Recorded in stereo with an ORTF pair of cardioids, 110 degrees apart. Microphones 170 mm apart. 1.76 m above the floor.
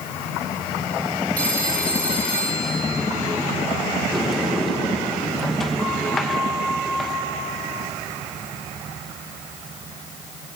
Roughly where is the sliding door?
Ahead.